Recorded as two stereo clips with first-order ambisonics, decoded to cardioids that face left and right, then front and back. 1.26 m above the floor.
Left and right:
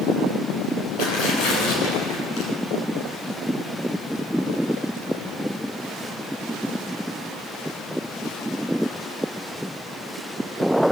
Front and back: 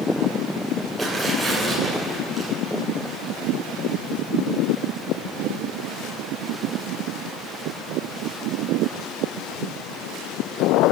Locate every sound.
1.0 s tearing paper: 95° left, 9.5 m